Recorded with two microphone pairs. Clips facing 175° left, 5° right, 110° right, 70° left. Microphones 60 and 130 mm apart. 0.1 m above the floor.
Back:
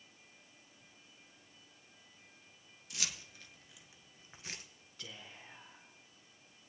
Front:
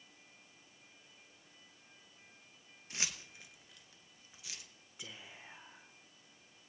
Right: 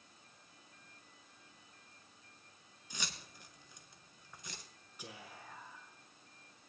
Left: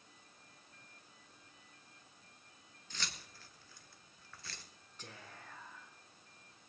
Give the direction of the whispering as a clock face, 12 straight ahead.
2 o'clock.